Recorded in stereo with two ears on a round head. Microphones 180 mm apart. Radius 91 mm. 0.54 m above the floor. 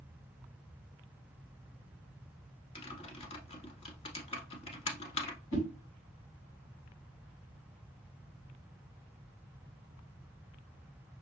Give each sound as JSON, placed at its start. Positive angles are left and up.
{"t": 2.8, "sound": "typing on a keyboard", "side_deg": 30, "distance_m": 1.1}
{"t": 5.5, "sound": "a whoosh", "side_deg": 60, "distance_m": 2.5}